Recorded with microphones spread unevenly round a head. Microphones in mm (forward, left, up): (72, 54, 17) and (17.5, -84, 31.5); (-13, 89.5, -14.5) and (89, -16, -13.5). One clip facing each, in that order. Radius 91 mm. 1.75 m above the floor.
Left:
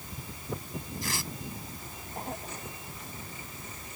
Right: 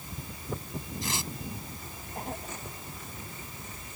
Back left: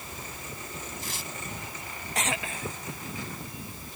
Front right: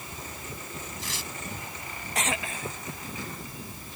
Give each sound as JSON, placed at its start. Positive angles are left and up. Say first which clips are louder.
{"t": 1.0, "sound": "tearing paper", "louder": "right 2 dB, even", "azimuth_deg": -45}